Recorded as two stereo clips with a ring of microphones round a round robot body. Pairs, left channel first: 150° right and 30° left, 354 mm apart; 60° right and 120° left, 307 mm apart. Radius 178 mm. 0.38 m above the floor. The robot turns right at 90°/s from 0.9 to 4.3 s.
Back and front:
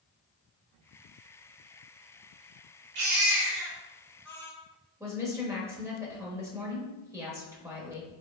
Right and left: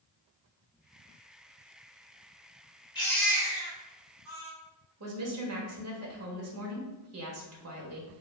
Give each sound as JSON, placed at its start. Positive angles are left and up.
{"t": 3.0, "sound": "a baby crying", "azimuth_deg": 5, "distance_m": 1.2}
{"t": 5.0, "sound": "a woman speaking", "azimuth_deg": 110, "distance_m": 1.1}